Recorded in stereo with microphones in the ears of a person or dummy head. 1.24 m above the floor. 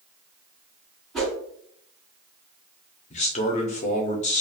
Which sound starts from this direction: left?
A man speaking, at 3.1 s.